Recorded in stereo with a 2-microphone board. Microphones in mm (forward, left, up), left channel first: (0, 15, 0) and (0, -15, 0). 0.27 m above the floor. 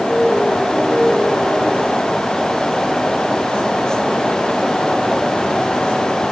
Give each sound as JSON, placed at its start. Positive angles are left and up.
{"t": 0.1, "sound": "a piano", "side_deg": 10, "distance_m": 5.0}